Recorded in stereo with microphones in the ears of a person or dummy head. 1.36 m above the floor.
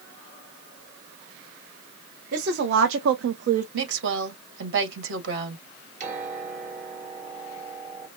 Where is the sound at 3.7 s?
70° right (ahead or behind), 1.8 m.